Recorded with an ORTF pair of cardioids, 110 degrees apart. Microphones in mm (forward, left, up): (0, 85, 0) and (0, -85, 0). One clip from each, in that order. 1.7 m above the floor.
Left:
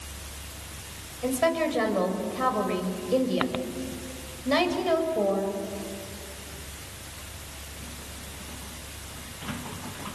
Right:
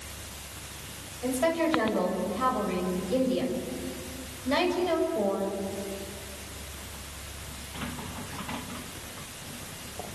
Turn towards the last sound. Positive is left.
turn(degrees=20)